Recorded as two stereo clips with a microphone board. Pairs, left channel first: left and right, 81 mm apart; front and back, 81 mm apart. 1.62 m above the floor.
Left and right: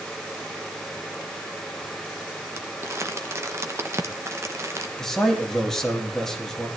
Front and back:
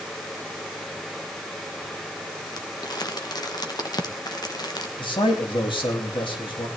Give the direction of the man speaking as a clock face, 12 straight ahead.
12 o'clock.